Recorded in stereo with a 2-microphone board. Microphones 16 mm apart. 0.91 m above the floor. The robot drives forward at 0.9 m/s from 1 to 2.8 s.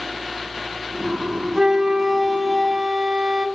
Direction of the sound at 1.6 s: 45° right (ahead or behind).